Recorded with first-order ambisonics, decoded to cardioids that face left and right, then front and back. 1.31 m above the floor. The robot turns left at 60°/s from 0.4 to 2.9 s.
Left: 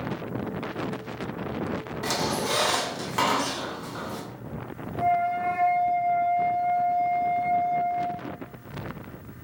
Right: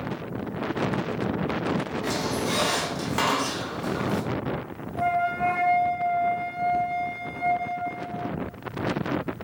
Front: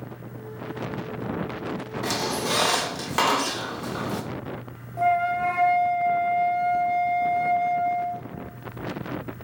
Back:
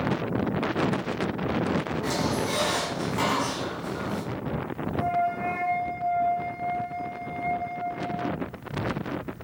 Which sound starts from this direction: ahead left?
A squeak, at 2.0 s.